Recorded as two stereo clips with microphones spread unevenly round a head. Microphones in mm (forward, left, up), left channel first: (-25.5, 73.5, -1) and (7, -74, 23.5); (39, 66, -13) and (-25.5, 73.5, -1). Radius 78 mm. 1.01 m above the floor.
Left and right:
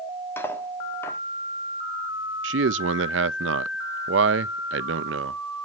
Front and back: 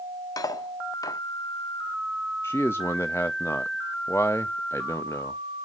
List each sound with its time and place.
0.4 s cutlery clinking: 25° left, 1.0 m
2.4 s a man speaking: 75° right, 0.6 m